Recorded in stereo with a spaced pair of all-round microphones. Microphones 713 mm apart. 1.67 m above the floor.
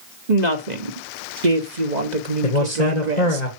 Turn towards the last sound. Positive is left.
turn(degrees=65)  # may be behind; listen again after turning